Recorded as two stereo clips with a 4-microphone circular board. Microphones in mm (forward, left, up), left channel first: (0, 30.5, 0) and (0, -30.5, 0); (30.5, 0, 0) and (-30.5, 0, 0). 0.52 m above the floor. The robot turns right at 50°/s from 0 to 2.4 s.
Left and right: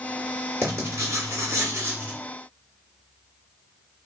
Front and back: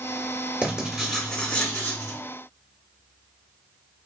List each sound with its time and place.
0.6 s writing: 115° right, 1.6 m; by 2.2 s 30° right, 1.6 m